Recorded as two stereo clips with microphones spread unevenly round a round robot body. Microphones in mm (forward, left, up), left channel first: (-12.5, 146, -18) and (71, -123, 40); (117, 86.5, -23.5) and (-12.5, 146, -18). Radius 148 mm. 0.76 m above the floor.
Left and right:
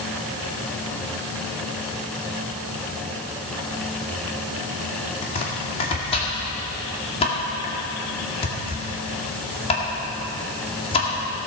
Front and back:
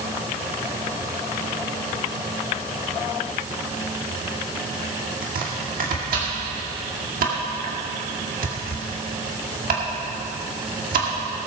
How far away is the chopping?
About 2 m.